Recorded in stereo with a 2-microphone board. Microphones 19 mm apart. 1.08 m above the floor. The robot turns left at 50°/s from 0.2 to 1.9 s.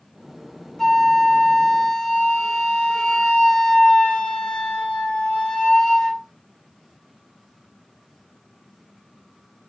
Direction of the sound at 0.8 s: 160° left.